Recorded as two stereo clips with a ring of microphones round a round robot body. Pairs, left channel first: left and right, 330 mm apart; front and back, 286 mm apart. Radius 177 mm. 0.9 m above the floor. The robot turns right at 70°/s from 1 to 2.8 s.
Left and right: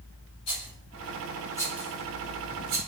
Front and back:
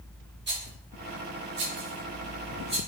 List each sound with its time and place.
0.5 s a rattle: 130° left, 2 m; by 2.8 s 105° right, 2 m